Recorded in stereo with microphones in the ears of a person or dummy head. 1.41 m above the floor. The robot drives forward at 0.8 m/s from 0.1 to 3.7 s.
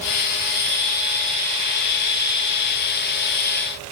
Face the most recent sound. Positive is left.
No sound to turn to.